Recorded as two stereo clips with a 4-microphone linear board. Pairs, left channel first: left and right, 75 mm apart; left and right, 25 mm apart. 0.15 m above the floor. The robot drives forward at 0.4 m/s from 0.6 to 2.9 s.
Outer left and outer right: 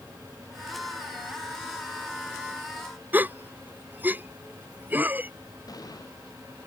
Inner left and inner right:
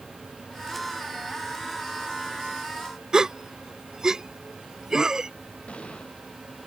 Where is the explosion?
55° left (ahead or behind).